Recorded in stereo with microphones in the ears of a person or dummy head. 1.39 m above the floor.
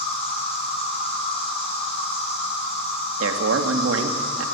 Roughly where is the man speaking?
Right.